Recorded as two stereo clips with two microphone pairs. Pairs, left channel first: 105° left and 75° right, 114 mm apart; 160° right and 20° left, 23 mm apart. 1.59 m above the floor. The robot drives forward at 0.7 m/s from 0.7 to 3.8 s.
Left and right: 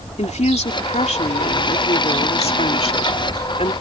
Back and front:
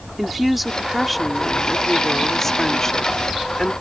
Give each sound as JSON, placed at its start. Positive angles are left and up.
{"t": 0.2, "sound": "a woman speaking", "azimuth_deg": 105}